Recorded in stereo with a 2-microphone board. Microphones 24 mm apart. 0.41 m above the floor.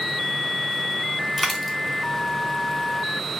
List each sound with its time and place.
1.4 s a dropped coin: centre (ahead or behind), 1.0 m